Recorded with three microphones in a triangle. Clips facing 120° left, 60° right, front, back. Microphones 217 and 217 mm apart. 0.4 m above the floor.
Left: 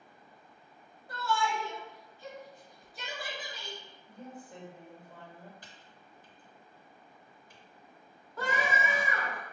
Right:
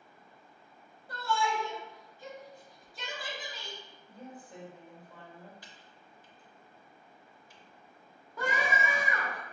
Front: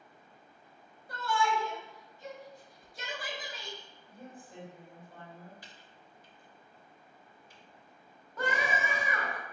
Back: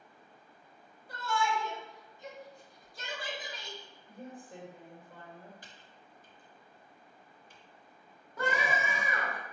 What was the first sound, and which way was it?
A shout, 10° right.